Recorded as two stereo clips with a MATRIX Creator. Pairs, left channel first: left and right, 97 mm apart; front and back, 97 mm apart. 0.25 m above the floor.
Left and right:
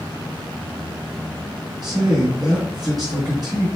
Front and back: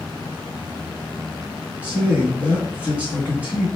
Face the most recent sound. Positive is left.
turn(degrees=-110)